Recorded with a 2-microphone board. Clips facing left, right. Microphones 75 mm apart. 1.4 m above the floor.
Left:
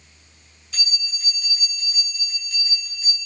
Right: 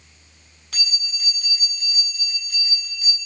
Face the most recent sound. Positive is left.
turn(degrees=-85)